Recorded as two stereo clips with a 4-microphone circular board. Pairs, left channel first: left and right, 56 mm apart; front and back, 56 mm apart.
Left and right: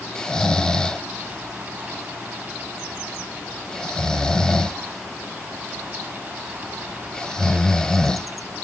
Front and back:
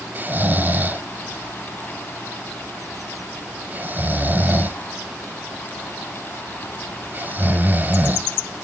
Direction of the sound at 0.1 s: 160° left.